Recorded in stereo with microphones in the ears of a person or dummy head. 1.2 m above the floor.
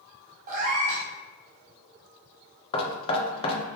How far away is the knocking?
About 0.8 m.